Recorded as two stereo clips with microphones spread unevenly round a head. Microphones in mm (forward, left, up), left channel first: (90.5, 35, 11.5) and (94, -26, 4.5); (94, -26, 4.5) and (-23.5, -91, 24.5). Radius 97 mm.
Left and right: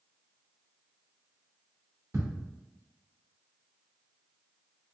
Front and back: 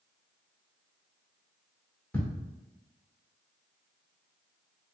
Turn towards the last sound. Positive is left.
turn(degrees=-50)